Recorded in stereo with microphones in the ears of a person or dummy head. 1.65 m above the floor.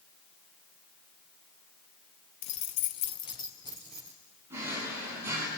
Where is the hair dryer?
I don't hear a hair dryer.